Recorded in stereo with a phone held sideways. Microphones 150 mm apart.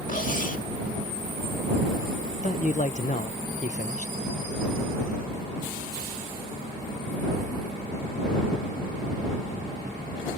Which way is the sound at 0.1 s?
65° left (ahead or behind).